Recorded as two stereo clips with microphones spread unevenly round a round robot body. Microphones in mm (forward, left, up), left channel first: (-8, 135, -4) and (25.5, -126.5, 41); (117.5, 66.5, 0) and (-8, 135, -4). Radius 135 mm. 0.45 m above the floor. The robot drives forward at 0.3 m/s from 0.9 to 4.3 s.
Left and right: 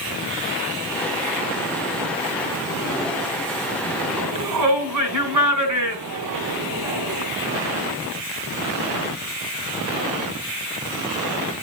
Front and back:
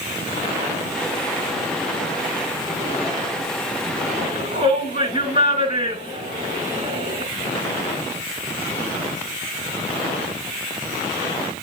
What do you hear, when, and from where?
4.2 s a shout: 90° right, 5 m; by 7.2 s 95° right, 5 m